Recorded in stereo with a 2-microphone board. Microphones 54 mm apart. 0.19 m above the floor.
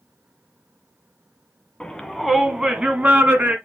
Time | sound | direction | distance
1.8 | a shout | 15° left (ahead or behind) | 1.3 m